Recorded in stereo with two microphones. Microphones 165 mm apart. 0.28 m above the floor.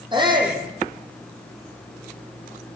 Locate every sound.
0.1 s a shout: 30° right (ahead or behind), 9.5 m